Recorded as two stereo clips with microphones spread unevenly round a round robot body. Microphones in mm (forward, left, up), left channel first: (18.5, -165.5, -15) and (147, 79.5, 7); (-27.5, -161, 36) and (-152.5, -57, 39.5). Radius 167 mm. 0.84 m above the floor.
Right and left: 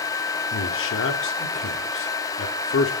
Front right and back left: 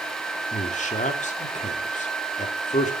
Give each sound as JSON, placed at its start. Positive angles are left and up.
{"t": 0.5, "sound": "a man speaking", "azimuth_deg": -80, "distance_m": 2.5}